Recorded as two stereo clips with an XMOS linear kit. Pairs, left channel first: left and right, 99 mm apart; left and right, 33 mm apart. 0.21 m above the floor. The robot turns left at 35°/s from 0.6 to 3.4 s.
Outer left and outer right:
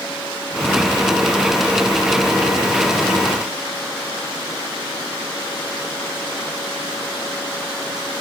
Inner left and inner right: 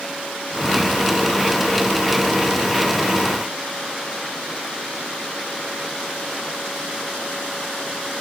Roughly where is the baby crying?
I don't hear a baby crying.